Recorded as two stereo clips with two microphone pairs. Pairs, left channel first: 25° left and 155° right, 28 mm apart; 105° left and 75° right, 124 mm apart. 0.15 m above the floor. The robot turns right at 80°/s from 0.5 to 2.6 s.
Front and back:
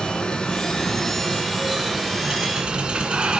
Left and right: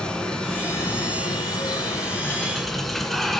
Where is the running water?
30° left, 1.2 m; by 3.4 s 165° right, 1.2 m.